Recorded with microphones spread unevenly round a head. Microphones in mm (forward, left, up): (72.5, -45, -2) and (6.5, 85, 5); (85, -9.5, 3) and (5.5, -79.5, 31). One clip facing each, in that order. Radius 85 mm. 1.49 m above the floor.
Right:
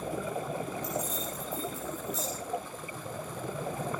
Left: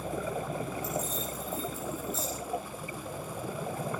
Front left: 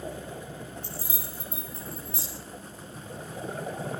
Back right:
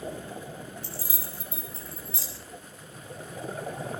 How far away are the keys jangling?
About 9 m.